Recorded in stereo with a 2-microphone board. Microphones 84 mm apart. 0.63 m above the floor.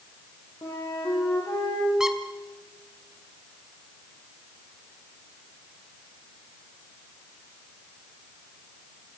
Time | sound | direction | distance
0.6 | a flute | 65° left (ahead or behind) | 7 m
2.0 | a squeak | 5° right (ahead or behind) | 2 m